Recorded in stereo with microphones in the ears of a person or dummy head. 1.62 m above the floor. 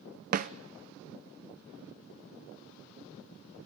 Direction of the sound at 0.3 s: 45° right (ahead or behind).